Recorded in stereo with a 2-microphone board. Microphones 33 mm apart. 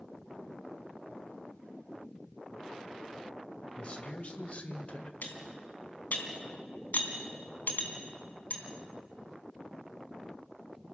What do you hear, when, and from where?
3.8 s a man speaking: 40° left (ahead or behind), 2.5 m; by 5.1 s 45° left (ahead or behind), 1.6 m
5.2 s cutlery clinking: 60° left (ahead or behind), 2.5 m